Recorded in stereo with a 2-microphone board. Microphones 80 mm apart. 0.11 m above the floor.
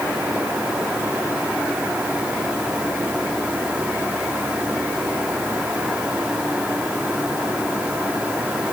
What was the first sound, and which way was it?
Only background noise.